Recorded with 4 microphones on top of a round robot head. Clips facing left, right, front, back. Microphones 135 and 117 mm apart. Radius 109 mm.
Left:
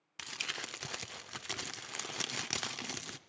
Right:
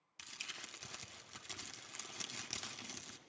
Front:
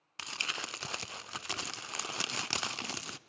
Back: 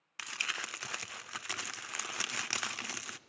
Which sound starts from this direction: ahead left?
Crumpling, at 0.2 s.